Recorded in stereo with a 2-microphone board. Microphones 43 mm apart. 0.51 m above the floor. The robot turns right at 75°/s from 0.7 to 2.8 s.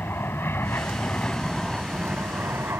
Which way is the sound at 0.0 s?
110° left.